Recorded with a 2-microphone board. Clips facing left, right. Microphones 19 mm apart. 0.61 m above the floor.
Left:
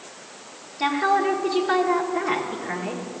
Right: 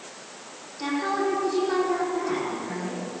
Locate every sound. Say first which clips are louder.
0.8 s a woman speaking: left 5 dB; 50° left (ahead or behind), 1.4 m